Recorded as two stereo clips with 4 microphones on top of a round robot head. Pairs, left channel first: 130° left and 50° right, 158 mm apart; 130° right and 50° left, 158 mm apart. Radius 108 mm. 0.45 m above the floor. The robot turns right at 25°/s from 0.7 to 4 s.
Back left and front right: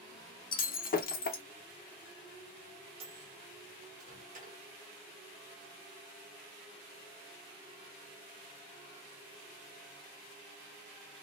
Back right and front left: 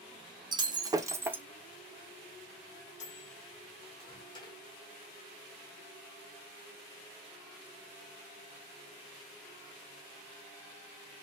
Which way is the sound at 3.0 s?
95° right.